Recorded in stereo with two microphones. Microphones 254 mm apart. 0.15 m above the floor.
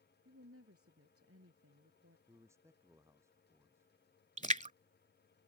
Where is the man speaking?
10° right (ahead or behind).